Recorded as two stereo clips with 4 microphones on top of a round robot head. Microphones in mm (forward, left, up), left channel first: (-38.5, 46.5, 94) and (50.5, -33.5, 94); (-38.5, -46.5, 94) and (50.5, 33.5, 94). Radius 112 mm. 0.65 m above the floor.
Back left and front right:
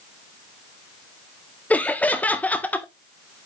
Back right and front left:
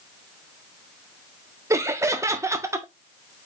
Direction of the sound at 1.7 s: 75° left.